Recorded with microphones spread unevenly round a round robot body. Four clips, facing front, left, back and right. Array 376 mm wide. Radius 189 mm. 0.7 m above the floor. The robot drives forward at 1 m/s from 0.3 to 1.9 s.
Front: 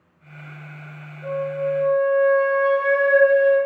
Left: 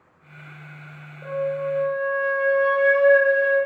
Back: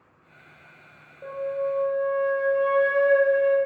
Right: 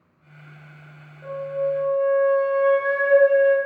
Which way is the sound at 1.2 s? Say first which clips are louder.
Even, front 3 dB; 155° left.